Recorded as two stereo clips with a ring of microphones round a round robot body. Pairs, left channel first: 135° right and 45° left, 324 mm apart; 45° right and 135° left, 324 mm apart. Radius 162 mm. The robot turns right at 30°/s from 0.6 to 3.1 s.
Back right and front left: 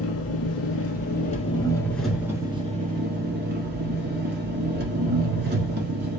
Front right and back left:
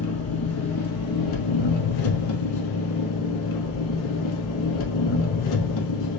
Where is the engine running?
90° right, 1.1 m; by 6.2 s 15° right, 1.1 m.